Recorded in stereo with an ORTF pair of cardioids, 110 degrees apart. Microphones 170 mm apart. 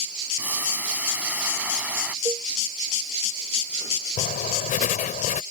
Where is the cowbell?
20° right.